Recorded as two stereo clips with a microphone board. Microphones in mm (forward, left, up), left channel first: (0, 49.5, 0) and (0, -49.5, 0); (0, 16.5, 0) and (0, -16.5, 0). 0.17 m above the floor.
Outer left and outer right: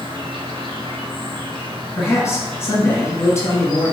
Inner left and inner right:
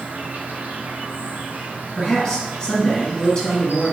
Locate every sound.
0.0 s an insect: 70° right (ahead or behind), 0.9 m
2.0 s a man speaking: 30° left (ahead or behind), 1.5 m